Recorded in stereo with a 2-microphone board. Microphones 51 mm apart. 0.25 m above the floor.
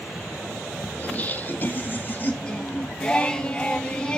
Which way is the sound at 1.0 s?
30° left (ahead or behind).